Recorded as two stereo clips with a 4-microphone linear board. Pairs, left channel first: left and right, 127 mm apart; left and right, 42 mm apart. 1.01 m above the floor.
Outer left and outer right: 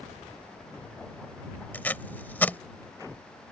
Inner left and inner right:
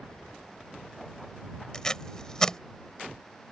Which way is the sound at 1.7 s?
15° left (ahead or behind).